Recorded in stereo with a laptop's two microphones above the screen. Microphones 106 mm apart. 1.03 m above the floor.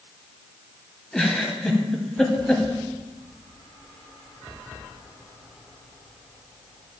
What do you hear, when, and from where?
1.1 s a giggle: 10° left (ahead or behind), 1.8 m